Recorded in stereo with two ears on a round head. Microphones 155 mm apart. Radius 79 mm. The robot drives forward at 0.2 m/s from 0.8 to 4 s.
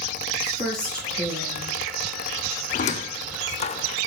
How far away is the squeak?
About 0.6 m.